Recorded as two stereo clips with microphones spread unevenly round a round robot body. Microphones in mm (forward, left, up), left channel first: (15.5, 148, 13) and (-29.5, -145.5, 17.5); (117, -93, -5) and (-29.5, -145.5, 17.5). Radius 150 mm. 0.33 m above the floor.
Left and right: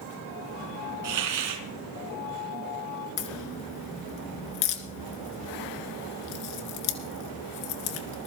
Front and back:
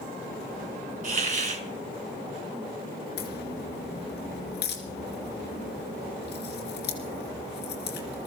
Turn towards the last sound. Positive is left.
turn(degrees=50)